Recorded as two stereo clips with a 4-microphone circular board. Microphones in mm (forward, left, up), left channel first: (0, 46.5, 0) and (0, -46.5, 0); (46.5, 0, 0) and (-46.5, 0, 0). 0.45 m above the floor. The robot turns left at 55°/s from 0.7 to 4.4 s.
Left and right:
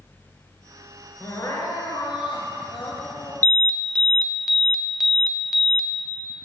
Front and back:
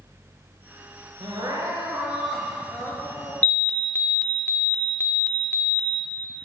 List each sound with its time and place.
1.2 s crying: 155° left, 1.2 m; by 3.3 s 40° left, 1.2 m
3.4 s an alarm: 50° left, 0.6 m; by 5.9 s 5° right, 0.6 m